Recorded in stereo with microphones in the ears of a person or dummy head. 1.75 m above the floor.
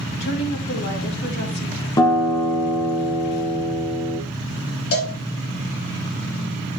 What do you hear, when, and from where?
0.2 s a woman speaking: 65° left (ahead or behind), 2.5 m
2.0 s a guitar: 15° left (ahead or behind), 0.9 m
4.9 s a cowbell: 65° left (ahead or behind), 2.5 m